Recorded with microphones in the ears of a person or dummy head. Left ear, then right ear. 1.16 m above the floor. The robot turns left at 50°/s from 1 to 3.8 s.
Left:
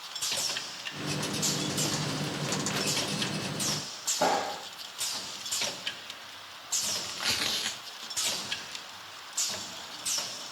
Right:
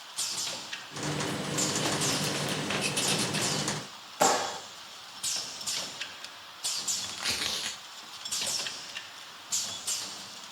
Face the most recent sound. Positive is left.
turn(degrees=0)  # may be behind; listen again after turning